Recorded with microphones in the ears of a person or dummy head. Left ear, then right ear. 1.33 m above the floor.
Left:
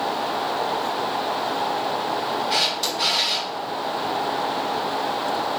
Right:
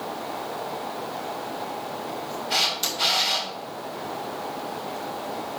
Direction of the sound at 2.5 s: 5° left (ahead or behind).